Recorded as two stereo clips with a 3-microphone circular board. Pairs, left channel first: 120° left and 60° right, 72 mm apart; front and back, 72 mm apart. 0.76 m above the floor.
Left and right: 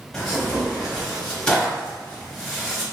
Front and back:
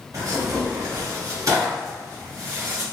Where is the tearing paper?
165° right, 1.5 m.